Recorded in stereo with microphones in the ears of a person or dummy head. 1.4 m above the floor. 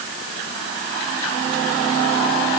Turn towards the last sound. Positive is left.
No sound to turn to.